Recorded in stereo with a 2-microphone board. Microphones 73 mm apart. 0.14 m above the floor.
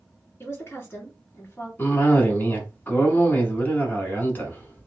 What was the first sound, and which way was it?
A woman speaking, 35° left (ahead or behind).